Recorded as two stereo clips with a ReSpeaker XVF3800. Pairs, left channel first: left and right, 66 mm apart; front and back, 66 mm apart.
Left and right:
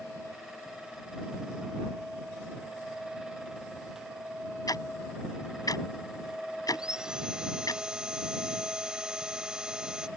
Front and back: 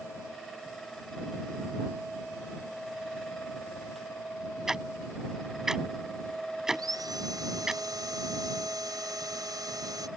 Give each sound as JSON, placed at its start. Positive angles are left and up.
{"t": 4.7, "sound": "ticking", "azimuth_deg": 95}
{"t": 6.7, "sound": "sawing", "azimuth_deg": -170}